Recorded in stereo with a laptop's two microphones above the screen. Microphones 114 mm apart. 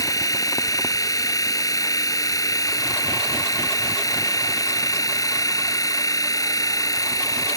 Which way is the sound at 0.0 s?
30° left (ahead or behind).